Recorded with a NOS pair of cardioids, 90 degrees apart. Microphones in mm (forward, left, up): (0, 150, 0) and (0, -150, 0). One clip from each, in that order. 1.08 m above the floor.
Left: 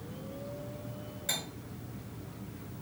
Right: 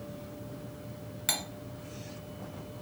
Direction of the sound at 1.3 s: 60° right.